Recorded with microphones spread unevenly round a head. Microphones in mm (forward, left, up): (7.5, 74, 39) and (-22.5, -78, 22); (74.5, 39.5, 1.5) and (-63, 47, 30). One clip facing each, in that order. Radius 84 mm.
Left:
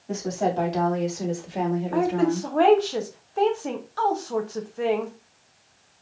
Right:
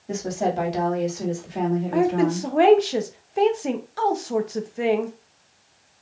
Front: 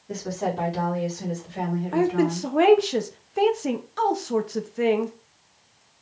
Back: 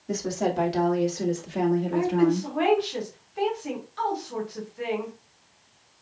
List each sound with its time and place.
0.1 s a woman speaking: 170° right, 2.5 m; by 2.5 s 150° left, 2.0 m
1.9 s a woman speaking: 35° right, 0.8 m